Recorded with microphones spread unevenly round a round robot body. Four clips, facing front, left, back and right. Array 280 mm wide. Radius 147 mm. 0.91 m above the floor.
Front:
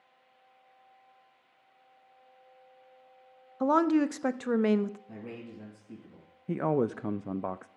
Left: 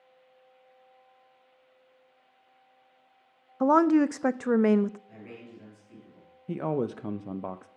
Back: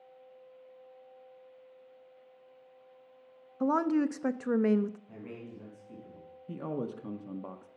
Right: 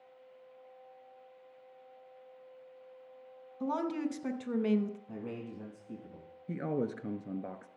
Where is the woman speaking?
65° left, 0.5 m.